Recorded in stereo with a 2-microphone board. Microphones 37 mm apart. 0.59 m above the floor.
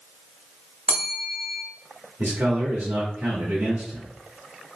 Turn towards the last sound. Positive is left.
turn(degrees=-65)  # may be behind; listen again after turning